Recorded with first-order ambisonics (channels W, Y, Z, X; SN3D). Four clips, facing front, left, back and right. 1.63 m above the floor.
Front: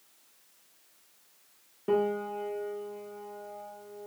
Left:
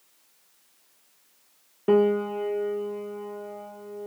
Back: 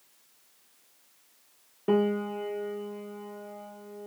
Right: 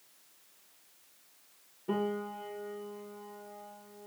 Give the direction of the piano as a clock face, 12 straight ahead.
8 o'clock.